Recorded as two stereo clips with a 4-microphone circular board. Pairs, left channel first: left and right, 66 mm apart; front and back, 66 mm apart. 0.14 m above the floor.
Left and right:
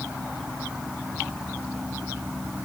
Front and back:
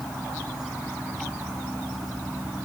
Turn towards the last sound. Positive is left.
No sound to turn to.